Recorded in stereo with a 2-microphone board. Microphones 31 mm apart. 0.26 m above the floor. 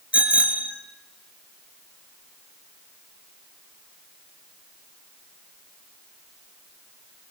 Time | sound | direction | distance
0.1 | a bicycle bell | 45° right (ahead or behind) | 2.5 m